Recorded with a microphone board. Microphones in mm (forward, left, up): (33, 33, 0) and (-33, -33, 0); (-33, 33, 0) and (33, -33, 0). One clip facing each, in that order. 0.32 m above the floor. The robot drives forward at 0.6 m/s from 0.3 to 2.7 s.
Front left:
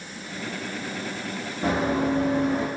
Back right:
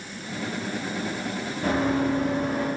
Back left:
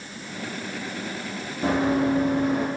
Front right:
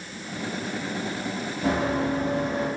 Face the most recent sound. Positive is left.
turn(degrees=115)